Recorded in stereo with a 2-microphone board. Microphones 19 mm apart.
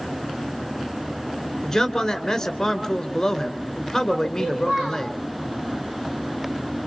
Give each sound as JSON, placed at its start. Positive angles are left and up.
{"t": 1.6, "sound": "a man speaking", "side_deg": 15, "distance_m": 2.5}
{"t": 4.4, "sound": "a child speaking", "side_deg": -70, "distance_m": 10.0}